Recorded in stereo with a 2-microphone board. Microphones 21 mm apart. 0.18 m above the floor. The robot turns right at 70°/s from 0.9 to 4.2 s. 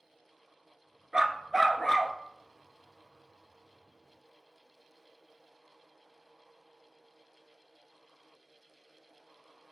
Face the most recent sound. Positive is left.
turn(degrees=180)